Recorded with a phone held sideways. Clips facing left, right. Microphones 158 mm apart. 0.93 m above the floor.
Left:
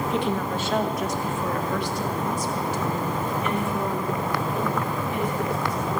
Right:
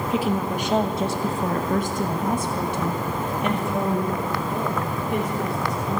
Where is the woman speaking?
Centre (ahead or behind), 1.1 m; by 6.0 s 75° right (ahead or behind), 3 m.